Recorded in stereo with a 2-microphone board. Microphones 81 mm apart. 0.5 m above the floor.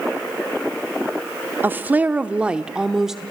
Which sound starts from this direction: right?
A woman speaking, at 1.6 s.